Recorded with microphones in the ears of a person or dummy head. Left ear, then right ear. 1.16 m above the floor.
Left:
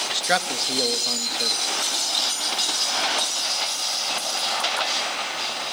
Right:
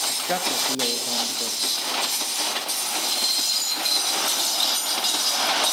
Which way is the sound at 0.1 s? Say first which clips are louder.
Left 2 dB; 50° left (ahead or behind).